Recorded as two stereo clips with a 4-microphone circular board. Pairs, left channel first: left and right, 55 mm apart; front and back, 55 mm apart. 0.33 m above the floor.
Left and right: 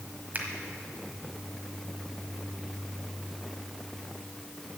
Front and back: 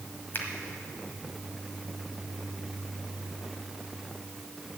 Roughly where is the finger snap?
Ahead right.